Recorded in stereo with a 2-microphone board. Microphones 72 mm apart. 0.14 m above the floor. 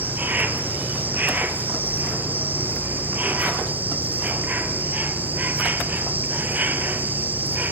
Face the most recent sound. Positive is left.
turn(degrees=-25)  # may be behind; listen again after turning